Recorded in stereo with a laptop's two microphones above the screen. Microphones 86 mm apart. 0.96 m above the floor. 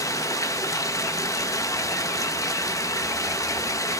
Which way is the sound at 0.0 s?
40° left (ahead or behind).